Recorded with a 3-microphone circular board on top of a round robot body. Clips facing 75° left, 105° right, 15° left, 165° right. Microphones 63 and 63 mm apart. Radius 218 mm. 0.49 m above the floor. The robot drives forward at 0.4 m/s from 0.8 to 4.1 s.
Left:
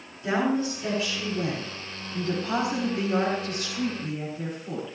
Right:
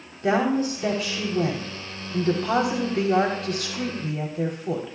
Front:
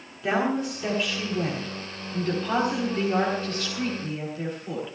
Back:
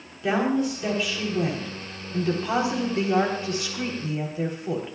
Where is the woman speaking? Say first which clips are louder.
Right 3 dB, back 2 dB; 75° right, 3.5 m; by 5.0 s 95° right, 3.5 m.